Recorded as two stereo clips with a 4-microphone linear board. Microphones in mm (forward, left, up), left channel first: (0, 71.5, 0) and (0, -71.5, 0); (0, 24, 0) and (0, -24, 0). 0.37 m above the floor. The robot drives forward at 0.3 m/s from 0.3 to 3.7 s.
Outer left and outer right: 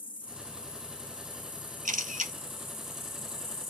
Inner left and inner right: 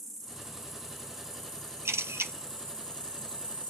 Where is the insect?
10° left (ahead or behind), 1.8 m; by 3.7 s 20° left (ahead or behind), 0.8 m.